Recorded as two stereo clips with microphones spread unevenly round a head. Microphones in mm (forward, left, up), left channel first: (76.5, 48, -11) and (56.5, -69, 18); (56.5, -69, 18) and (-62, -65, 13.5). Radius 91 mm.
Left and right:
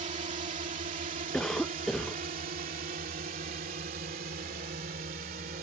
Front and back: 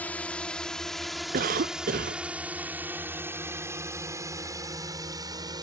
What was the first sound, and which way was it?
A drone, 80° right.